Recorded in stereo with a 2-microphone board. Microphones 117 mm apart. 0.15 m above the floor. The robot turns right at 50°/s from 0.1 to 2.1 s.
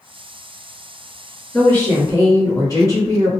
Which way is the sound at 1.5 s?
15° left (ahead or behind).